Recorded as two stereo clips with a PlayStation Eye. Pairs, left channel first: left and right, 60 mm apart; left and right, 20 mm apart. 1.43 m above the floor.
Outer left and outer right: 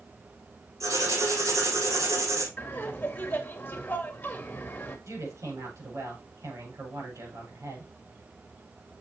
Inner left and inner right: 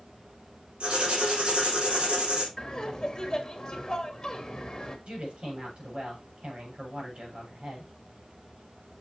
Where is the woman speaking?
60° right (ahead or behind), 6 m.